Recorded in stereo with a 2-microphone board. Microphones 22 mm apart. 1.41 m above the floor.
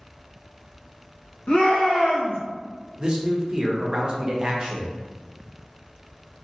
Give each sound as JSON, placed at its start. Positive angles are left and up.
{"t": 1.5, "sound": "a shout", "side_deg": 80, "distance_m": 1.2}
{"t": 3.0, "sound": "a man speaking", "side_deg": -35, "distance_m": 0.8}